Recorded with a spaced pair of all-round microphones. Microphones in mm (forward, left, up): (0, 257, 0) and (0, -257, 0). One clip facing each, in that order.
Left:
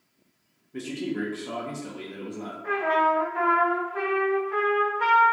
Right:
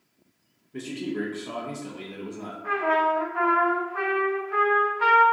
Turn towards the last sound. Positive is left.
turn(degrees=-30)  # may be behind; listen again after turning